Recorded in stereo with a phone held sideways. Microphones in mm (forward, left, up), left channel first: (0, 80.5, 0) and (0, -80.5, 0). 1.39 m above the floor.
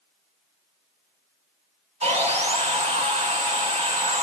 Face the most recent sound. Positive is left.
turn(degrees=-45)  # may be behind; listen again after turning